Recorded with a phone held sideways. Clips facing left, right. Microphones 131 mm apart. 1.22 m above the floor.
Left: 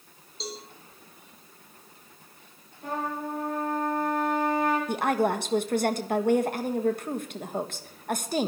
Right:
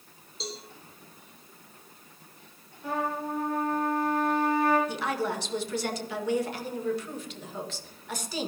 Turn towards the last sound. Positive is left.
turn(degrees=55)  # may be behind; listen again after turning